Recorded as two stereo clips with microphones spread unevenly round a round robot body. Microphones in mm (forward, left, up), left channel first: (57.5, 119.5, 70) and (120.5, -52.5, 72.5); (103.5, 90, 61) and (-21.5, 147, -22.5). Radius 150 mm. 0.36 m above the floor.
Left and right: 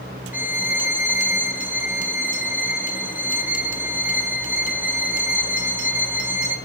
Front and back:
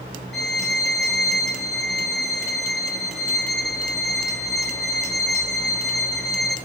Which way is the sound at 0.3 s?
145° right.